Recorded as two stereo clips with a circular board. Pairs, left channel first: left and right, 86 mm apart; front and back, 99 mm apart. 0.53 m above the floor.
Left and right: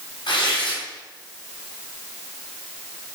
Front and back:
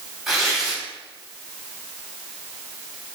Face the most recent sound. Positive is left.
turn(degrees=90)